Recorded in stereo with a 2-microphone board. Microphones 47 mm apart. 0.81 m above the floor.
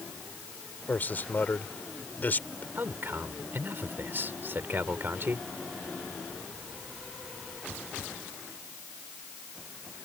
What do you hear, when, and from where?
0.9 s a man speaking: 40° left (ahead or behind)
2.8 s a man speaking: 50° right (ahead or behind)